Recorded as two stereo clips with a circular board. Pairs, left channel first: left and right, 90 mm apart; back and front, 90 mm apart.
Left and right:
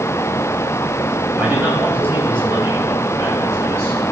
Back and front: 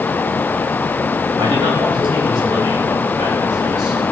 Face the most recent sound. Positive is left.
turn(degrees=-40)